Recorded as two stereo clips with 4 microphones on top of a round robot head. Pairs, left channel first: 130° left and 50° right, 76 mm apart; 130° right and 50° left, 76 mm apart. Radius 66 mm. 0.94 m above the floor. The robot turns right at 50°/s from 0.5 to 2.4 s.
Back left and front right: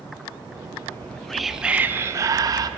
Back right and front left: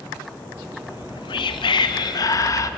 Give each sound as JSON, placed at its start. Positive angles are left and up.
{"t": 0.9, "sound": "whispering", "azimuth_deg": -165, "distance_m": 0.9}